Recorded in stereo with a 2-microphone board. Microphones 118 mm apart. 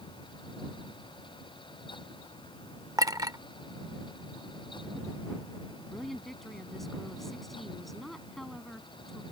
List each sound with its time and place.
3.0 s a clink: 30° right (ahead or behind)
5.8 s a woman speaking: 5° left (ahead or behind)